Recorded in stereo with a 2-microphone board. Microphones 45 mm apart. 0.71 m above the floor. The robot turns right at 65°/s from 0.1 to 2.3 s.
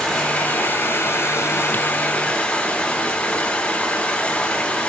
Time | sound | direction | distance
0.0 | running water | 15° left | 1.5 m